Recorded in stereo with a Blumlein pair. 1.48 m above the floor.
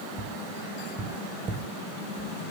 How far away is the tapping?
About 1.3 m.